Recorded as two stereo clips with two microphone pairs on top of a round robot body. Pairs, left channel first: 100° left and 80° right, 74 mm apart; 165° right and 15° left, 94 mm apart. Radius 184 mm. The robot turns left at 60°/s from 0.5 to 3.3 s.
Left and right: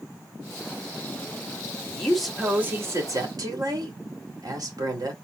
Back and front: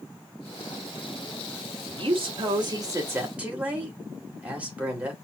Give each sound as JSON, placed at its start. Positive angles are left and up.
{"t": 1.9, "sound": "a woman speaking", "azimuth_deg": 25, "distance_m": 3.0}